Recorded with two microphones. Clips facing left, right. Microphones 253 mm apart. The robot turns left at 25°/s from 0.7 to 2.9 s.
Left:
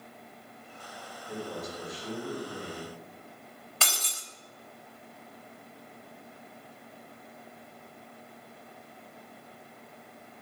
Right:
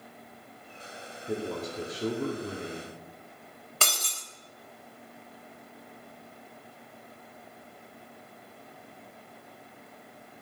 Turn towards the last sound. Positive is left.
turn(degrees=-50)  # may be behind; listen again after turning